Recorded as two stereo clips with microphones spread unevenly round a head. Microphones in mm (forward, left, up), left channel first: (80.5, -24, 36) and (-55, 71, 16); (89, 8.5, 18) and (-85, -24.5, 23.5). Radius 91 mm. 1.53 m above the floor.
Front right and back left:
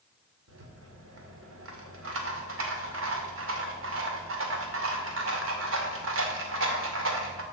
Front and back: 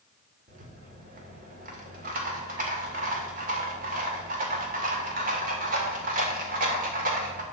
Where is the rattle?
145° left, 2 m.